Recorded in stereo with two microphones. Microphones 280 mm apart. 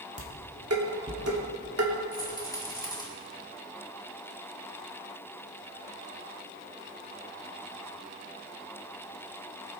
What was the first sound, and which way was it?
Dishes clattering, 55° right (ahead or behind).